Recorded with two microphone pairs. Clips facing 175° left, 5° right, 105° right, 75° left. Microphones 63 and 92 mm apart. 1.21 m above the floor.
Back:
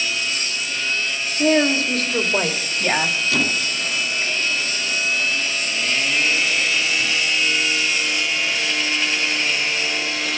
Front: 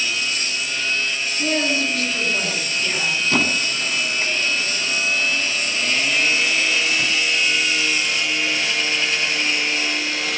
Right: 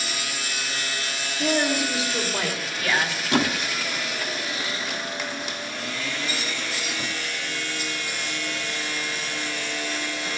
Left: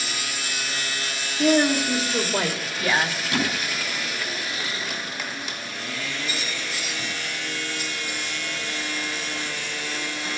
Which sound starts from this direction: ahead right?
A squeak, at 3.3 s.